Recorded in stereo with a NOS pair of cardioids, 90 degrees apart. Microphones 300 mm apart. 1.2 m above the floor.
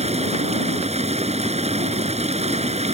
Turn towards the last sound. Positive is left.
turn(degrees=-20)